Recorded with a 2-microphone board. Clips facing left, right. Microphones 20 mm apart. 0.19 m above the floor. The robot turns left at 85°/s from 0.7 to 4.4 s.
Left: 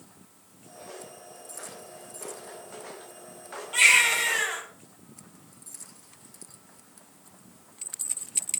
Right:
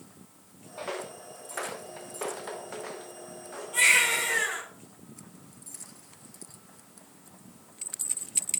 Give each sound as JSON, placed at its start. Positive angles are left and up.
{"t": 0.8, "sound": "footsteps", "side_deg": -65, "distance_m": 1.0}
{"t": 3.7, "sound": "a baby crying", "azimuth_deg": 140, "distance_m": 3.5}